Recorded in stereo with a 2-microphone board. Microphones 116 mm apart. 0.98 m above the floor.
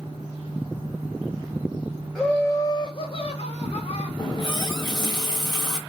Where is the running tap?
35° left (ahead or behind), 0.9 m.